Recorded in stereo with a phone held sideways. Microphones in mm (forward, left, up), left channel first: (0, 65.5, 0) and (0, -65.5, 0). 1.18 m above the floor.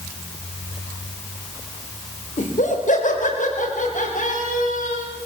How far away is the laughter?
About 4.5 m.